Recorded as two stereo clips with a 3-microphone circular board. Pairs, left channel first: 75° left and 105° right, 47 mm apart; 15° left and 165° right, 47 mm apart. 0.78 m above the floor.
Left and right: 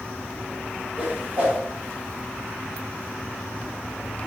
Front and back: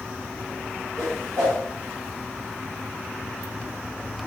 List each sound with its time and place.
1.0 s a whoosh: 170° right, 1.4 m